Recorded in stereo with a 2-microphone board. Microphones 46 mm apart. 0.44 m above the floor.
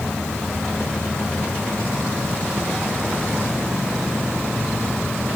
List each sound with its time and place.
Only background noise.